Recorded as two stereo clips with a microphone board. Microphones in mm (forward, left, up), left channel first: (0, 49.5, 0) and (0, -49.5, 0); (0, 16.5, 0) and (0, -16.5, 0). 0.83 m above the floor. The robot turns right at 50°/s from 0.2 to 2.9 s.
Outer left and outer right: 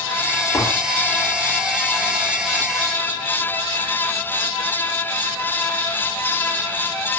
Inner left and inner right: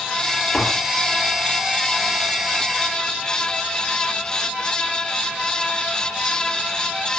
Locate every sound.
0.5 s tapping: 35° left (ahead or behind), 0.8 m; by 0.9 s 15° left (ahead or behind), 0.8 m